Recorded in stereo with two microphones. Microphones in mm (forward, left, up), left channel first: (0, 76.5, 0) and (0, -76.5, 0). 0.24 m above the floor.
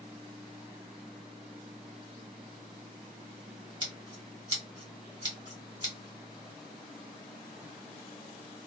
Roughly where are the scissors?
Right.